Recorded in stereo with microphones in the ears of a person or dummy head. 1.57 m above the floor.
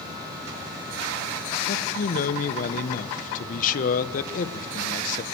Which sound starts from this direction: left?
A man speaking, at 1.7 s.